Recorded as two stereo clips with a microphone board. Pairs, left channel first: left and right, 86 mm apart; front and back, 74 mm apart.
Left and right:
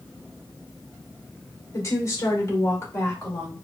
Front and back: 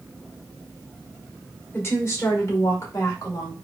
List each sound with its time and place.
1.7 s a woman speaking: 50° left, 1.3 m; by 3.5 s 30° left, 2 m